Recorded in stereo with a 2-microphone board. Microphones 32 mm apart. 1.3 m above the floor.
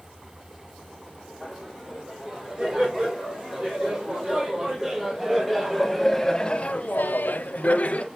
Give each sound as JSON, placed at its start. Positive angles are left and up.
{"t": 1.4, "sound": "laughter", "side_deg": -20, "distance_m": 4.5}